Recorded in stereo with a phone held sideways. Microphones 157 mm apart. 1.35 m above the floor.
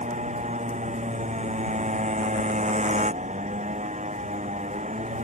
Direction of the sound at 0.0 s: 50° right (ahead or behind).